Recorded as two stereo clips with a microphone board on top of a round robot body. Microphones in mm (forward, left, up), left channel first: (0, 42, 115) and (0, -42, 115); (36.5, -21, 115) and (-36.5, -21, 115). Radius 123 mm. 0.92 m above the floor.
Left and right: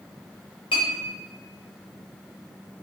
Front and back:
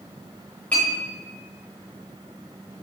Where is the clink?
70° left, 3 m.